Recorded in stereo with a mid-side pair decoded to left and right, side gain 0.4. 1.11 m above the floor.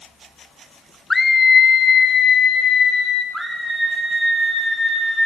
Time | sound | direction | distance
1.1 | a scream | 15° left | 0.7 m
3.3 | a scream | 10° right | 4 m